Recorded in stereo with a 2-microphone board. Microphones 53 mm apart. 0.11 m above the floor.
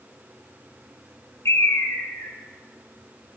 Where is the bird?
65° left (ahead or behind), 0.6 m.